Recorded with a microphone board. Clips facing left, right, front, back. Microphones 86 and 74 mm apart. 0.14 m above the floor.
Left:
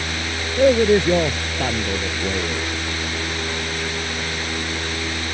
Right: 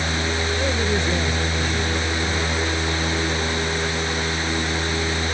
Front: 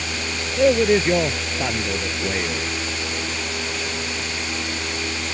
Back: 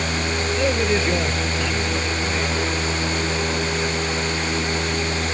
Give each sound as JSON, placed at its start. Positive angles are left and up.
{"t": 0.6, "sound": "a man speaking", "azimuth_deg": 65}